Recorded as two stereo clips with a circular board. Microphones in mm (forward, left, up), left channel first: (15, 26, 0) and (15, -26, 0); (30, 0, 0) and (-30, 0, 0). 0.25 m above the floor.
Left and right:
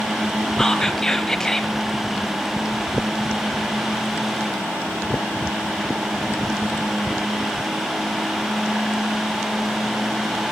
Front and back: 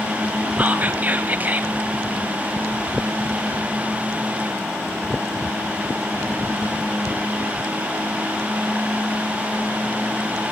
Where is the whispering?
160° left, 1.5 m.